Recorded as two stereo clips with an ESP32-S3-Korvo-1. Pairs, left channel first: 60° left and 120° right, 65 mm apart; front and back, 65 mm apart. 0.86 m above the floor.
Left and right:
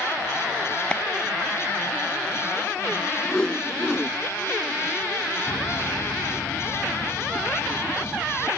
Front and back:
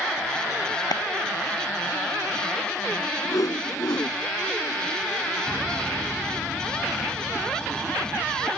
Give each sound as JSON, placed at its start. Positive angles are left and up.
{"t": 0.9, "sound": "a clap", "azimuth_deg": -15}
{"t": 3.2, "sound": "a whoosh", "azimuth_deg": -20}
{"t": 5.5, "sound": "a piano", "azimuth_deg": 95}